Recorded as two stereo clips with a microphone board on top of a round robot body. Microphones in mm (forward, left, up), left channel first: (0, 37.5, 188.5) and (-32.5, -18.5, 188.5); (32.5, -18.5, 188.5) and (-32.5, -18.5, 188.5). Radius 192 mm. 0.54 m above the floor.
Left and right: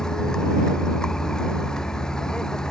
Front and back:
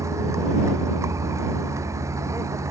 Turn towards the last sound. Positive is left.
turn(degrees=140)